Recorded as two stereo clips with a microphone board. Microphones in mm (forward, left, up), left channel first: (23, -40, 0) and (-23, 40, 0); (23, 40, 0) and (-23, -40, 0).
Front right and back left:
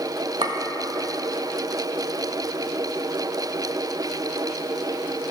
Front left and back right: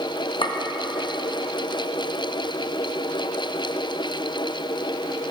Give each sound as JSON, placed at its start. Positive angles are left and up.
{"t": 0.4, "sound": "a clink", "azimuth_deg": 90, "distance_m": 0.7}